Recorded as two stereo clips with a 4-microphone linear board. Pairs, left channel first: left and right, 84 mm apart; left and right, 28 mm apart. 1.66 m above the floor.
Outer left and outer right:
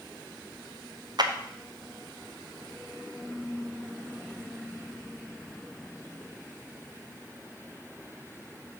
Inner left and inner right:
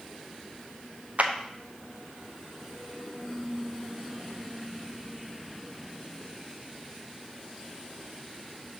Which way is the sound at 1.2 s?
55° right (ahead or behind).